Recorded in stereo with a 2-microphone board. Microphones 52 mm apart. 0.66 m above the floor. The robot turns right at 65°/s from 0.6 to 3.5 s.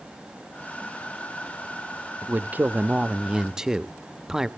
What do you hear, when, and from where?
2.2 s a man speaking: 100° right, 0.5 m; by 4.5 s 15° right, 0.5 m